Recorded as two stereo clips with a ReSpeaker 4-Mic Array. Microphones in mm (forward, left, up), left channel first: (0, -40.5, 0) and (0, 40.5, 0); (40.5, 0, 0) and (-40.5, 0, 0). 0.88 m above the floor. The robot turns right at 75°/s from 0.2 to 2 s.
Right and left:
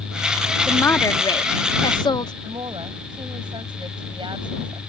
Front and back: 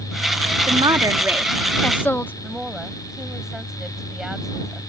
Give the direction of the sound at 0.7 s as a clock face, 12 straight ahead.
6 o'clock.